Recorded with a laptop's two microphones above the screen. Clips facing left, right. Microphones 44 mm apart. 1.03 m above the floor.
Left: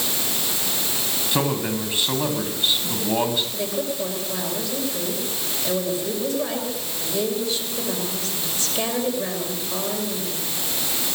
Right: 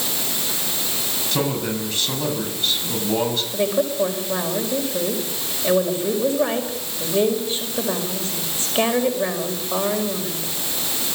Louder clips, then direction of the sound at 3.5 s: Right 6 dB; 30° right (ahead or behind).